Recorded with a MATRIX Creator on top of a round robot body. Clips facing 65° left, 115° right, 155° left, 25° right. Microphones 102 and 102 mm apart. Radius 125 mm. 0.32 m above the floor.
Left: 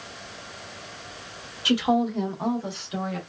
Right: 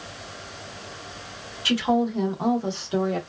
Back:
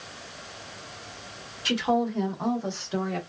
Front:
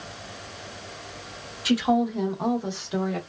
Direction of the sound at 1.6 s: 55° left.